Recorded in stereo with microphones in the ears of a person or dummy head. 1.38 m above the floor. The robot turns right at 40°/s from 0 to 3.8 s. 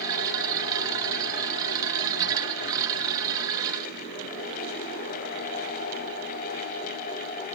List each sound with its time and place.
Only background noise.